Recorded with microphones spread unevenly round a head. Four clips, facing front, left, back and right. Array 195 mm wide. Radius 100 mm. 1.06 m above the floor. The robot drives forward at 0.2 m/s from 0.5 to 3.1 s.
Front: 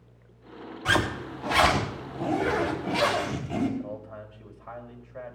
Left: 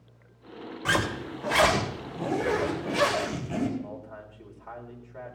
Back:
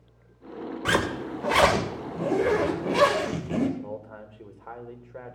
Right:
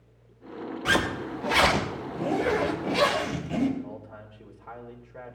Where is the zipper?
170° right, 2.5 m.